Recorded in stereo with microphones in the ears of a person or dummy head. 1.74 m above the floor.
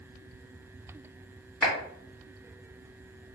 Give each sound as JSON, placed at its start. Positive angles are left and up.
{"t": 1.6, "sound": "a clap", "side_deg": 0, "distance_m": 1.6}